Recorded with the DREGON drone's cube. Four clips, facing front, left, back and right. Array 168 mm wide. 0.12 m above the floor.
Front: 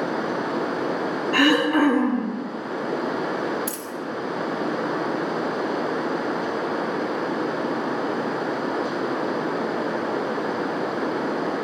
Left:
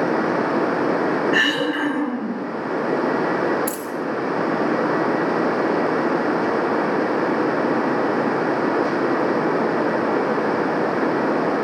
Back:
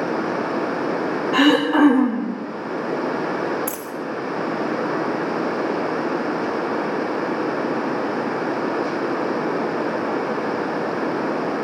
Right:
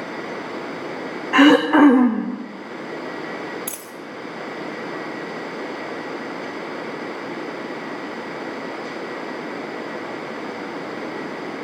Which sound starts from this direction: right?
Throat clearing, at 1.3 s.